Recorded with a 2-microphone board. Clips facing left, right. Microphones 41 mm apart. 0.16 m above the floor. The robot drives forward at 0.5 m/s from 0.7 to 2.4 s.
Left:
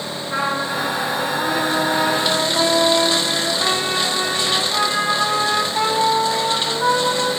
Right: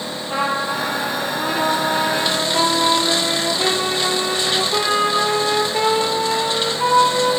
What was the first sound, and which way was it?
A trumpet, 55° right (ahead or behind).